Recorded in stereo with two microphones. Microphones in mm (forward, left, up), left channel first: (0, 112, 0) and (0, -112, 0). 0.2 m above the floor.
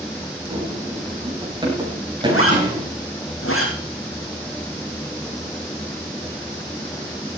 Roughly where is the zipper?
Left.